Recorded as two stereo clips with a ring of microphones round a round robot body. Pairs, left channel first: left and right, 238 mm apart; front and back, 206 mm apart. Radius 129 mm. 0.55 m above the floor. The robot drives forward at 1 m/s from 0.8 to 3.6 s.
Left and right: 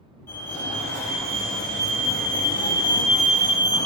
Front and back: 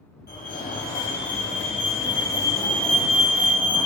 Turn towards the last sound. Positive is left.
turn(degrees=135)